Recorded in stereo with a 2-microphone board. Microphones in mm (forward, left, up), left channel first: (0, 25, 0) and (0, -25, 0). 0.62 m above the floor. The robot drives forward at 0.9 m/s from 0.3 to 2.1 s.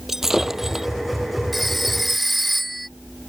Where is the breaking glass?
5° right (ahead or behind).